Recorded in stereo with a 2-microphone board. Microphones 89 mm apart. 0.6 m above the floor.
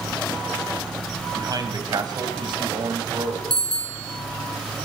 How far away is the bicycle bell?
About 3.5 m.